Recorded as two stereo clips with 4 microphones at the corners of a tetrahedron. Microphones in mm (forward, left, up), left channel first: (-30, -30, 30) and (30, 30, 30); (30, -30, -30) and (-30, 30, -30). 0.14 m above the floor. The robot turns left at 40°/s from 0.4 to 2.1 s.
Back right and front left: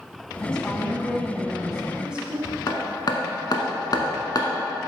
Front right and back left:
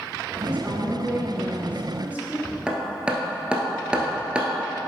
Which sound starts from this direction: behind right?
Hammering, at 2.7 s.